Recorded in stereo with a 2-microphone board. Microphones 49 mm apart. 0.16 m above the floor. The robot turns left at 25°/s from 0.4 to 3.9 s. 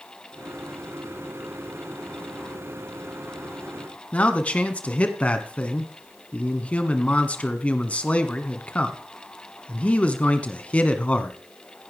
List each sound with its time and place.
4.1 s a man speaking: 25° left (ahead or behind), 1.6 m